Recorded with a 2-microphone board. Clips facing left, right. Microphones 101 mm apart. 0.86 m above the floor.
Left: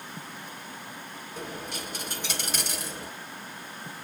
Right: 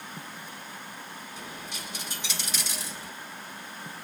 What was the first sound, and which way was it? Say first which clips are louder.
A dropped coin: left 7 dB; 55° left (ahead or behind).